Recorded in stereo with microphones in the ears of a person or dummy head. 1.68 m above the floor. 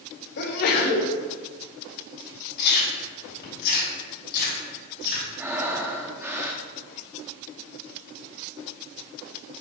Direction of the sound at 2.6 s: 55° left (ahead or behind).